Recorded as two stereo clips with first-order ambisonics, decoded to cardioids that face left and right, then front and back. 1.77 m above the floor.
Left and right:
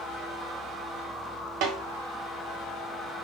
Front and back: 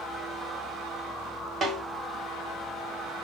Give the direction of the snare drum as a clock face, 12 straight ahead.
4 o'clock.